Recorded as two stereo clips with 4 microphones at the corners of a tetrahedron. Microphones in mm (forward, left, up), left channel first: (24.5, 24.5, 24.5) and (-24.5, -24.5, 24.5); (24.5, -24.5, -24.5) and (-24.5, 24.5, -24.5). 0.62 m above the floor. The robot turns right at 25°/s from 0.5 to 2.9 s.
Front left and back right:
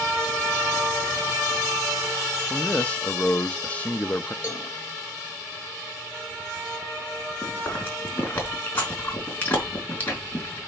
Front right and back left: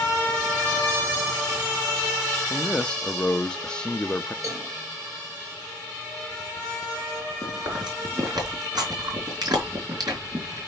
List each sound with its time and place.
2.5 s a man speaking: straight ahead, 0.7 m; by 4.3 s 10° left, 0.7 m
4.4 s a cowbell: 95° left, 3 m
7.4 s chewing: 110° left, 4.5 m